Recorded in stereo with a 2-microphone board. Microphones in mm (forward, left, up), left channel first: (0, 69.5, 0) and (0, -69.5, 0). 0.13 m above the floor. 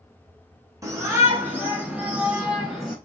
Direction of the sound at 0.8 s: 25° right (ahead or behind).